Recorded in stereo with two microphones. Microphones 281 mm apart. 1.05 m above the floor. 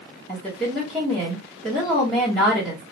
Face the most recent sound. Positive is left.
turn(degrees=0)  # may be behind; listen again after turning